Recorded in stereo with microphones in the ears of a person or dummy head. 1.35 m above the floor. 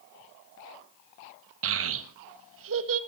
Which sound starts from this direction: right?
A child speaking, at 1.6 s.